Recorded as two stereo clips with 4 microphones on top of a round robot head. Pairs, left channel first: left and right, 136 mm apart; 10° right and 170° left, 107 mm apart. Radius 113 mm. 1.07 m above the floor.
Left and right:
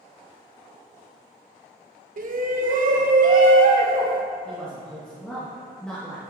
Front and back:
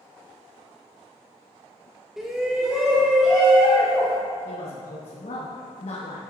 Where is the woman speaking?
5° left, 1.5 m.